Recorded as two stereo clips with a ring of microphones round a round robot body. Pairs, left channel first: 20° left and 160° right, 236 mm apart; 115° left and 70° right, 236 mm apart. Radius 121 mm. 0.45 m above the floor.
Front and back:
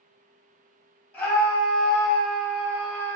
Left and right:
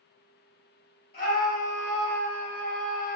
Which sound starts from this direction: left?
A scream, at 1.1 s.